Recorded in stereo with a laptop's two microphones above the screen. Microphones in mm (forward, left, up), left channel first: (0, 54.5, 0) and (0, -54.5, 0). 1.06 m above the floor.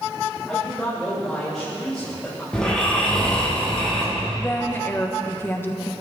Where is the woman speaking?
20° left (ahead or behind), 0.9 m.